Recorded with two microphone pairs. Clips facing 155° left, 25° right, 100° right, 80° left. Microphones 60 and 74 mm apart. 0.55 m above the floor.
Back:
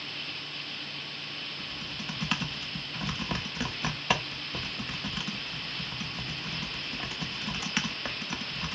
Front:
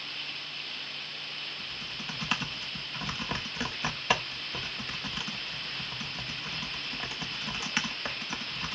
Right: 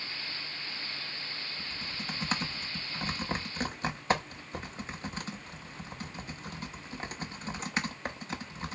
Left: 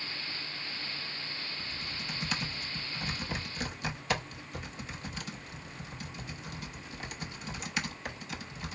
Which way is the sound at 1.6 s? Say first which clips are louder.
Back 1 dB, even; 115° right.